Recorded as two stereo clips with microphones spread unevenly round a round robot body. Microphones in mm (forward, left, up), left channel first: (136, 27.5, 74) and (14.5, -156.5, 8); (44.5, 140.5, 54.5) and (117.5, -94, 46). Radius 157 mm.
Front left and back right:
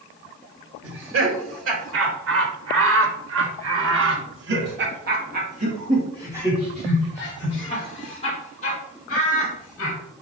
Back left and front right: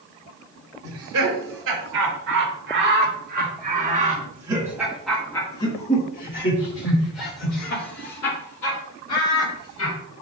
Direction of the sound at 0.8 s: 110° right.